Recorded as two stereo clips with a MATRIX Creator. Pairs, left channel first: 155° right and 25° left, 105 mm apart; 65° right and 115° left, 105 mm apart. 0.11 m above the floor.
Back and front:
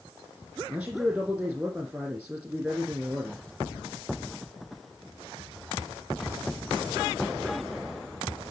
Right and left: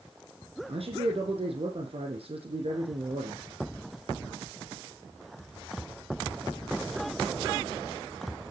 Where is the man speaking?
90° left, 3.5 m.